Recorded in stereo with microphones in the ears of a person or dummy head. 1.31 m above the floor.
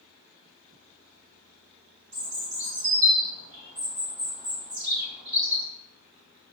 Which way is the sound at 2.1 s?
65° right (ahead or behind).